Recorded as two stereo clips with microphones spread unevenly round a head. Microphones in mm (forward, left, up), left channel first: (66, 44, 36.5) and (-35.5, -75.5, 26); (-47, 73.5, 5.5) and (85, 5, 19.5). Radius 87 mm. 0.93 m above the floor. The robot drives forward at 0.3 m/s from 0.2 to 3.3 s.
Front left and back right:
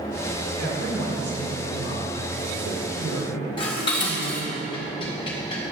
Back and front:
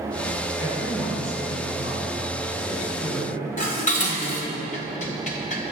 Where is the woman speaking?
120° right, 4 m; by 4.6 s 130° right, 4.5 m.